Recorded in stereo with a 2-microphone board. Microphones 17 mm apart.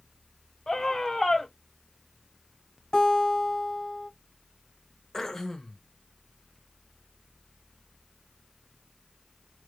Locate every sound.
0.7 s a scream: 35° left (ahead or behind), 1.3 m
2.9 s a guitar: 50° left (ahead or behind), 2 m
5.1 s throat clearing: 30° left (ahead or behind), 0.9 m